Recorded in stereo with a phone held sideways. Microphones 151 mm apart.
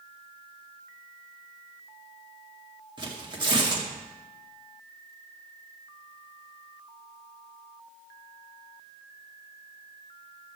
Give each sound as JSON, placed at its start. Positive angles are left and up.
{"t": 3.0, "sound": "tearing paper", "side_deg": -30, "distance_m": 2.0}